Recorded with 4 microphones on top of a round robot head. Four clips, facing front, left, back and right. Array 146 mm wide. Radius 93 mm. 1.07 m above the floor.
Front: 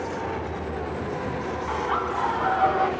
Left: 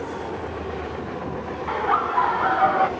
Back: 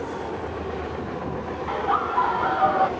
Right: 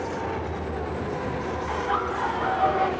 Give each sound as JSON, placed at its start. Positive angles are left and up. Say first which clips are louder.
{"t": 1.7, "sound": "laughter", "louder": "left 6 dB, back 4 dB", "azimuth_deg": 100, "distance_m": 1.2}